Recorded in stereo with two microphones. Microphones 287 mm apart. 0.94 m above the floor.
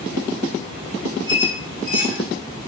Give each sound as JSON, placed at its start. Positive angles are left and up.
{"t": 1.3, "sound": "a squeak", "side_deg": 5, "distance_m": 5.0}